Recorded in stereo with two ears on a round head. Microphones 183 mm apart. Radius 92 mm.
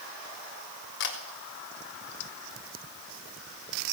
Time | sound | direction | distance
1.0 | a camera shutter | 55° left (ahead or behind) | 3.5 m